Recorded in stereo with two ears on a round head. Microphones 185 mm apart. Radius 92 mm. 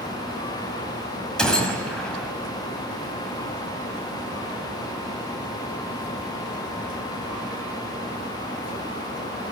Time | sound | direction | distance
1.4 | a gunshot | 5° left (ahead or behind) | 5 m